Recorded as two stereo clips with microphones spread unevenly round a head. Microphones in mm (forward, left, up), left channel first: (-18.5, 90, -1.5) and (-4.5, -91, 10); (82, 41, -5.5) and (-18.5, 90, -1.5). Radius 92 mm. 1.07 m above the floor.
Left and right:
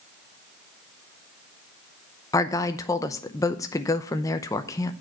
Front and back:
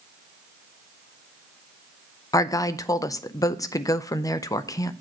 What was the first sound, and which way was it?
A woman speaking, 25° left.